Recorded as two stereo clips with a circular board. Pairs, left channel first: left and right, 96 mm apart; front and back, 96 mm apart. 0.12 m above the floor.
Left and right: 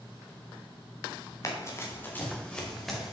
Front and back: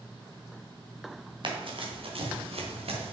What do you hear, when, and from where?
1.4 s running footsteps: 145° left, 2.5 m; by 3.1 s 175° right, 2.5 m